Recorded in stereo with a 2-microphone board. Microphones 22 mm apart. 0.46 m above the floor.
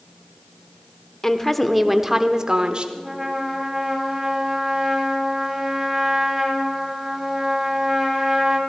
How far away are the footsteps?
I don't hear footsteps.